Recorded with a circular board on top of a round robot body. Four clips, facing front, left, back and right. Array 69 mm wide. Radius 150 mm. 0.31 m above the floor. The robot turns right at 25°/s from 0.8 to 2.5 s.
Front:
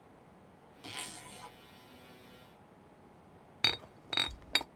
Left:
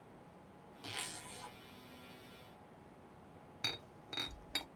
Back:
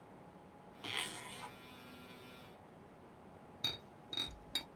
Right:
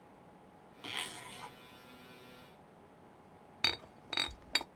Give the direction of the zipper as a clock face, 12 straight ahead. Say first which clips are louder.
Right 4 dB, back 2 dB; 5 o'clock.